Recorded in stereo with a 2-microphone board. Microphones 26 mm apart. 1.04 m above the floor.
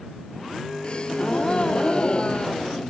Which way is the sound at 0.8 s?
40° left (ahead or behind).